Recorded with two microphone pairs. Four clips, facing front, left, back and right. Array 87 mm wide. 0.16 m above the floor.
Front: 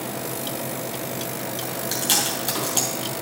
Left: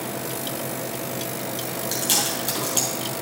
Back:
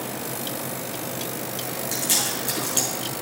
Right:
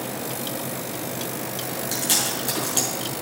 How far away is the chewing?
About 3.5 m.